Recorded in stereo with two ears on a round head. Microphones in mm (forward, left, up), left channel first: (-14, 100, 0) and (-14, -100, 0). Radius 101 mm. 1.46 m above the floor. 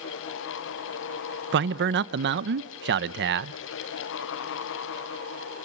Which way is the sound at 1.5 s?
50° right (ahead or behind).